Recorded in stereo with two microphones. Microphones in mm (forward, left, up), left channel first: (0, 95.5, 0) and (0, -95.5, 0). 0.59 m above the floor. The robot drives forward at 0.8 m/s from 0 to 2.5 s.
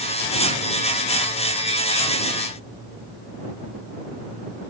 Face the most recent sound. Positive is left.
No sound to turn to.